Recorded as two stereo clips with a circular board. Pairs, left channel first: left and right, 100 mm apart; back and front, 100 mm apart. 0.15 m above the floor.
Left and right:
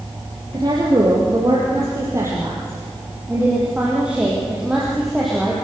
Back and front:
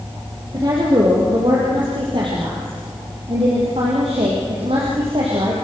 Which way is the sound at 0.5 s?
45° right.